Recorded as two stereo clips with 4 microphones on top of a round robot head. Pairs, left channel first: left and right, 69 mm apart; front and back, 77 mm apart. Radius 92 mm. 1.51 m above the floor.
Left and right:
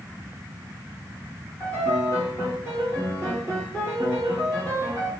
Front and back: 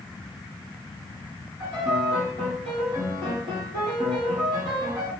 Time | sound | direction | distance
1.6 | a piano | 165° left | 1.9 m